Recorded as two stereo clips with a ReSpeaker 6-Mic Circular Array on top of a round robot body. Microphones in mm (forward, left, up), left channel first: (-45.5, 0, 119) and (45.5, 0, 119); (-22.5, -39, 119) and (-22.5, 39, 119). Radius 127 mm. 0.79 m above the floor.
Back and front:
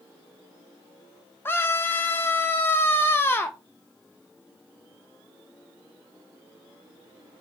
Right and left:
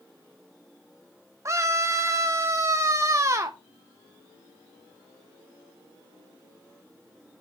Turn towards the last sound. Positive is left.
turn(degrees=125)